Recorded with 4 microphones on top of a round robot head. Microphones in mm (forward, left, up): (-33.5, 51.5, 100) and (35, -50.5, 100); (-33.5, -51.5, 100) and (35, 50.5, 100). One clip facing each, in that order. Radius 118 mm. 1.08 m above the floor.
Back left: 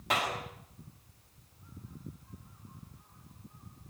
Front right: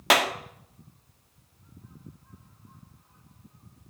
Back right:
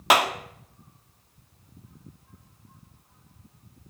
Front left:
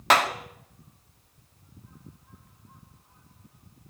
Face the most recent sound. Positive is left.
turn(degrees=-45)